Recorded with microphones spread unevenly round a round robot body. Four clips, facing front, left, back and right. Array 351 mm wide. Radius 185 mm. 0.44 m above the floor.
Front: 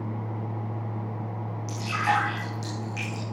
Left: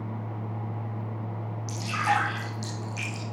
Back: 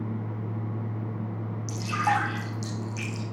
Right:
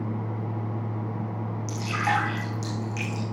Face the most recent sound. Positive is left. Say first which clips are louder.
# even, even
turn(degrees=-150)